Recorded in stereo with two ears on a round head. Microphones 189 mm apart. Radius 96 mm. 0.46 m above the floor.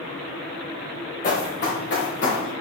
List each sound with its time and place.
1.2 s running footsteps: 40° left (ahead or behind), 3 m; by 2.5 s 55° left (ahead or behind), 3.5 m